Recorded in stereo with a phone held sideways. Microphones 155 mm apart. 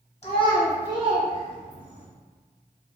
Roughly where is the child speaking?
Left.